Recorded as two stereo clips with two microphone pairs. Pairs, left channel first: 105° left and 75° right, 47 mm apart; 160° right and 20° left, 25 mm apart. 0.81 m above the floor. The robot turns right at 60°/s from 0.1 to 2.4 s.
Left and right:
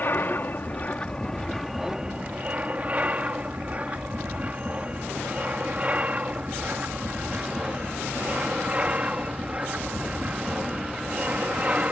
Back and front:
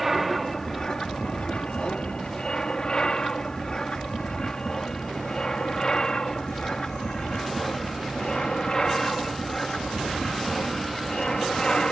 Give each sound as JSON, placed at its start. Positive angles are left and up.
{"t": 0.0, "sound": "an aircraft", "azimuth_deg": 105}